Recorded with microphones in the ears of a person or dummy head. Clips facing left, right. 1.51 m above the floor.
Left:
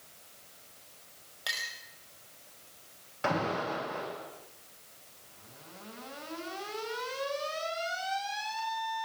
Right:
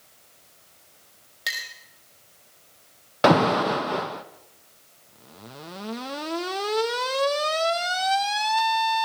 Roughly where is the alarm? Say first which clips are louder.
Right 13 dB; right.